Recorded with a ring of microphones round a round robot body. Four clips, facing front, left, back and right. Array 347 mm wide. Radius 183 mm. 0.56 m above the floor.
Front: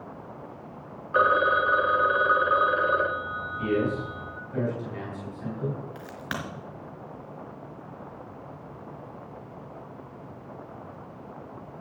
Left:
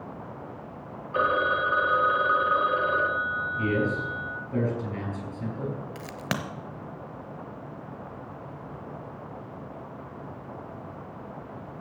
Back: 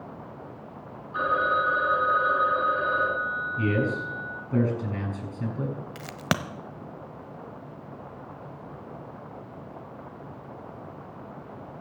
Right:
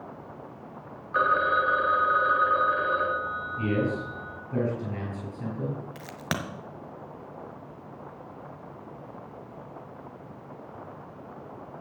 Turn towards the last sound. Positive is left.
turn(degrees=175)